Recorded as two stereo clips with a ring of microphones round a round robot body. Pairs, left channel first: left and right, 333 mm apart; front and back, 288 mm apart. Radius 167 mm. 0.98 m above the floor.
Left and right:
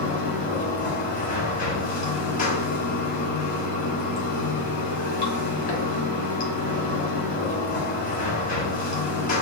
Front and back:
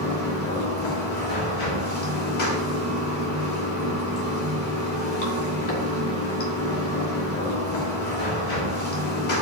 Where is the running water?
25° left, 1.3 m.